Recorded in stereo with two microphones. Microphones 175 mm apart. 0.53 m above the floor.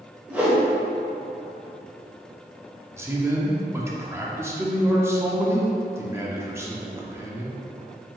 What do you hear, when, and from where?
0.3 s a whoosh: 10° right (ahead or behind), 1.3 m
3.0 s a man speaking: 15° right (ahead or behind), 0.6 m